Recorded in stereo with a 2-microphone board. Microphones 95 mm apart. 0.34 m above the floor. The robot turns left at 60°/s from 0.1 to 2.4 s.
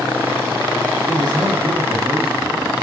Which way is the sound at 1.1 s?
100° right.